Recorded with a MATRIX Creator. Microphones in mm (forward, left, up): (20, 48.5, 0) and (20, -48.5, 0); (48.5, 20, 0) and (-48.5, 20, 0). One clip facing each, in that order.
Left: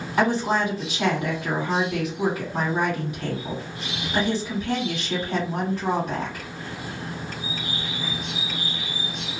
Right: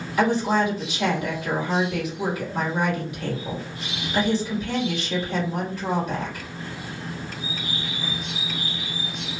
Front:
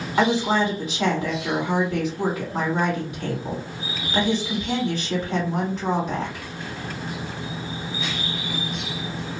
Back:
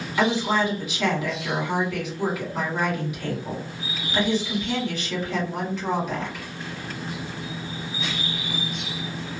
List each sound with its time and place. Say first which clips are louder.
0.2 s a woman speaking: right 1 dB, front 2 dB; 45° left, 1.8 m